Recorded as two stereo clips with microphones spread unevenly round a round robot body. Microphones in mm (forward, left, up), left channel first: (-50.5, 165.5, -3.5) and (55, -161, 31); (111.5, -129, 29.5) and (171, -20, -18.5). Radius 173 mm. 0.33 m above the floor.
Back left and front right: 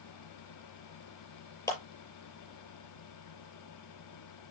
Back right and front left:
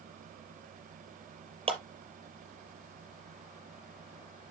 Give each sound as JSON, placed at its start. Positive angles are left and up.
{"t": 1.7, "sound": "a clap", "azimuth_deg": 30, "distance_m": 6.0}